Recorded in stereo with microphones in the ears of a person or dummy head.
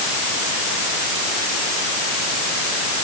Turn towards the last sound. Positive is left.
No sound to turn to.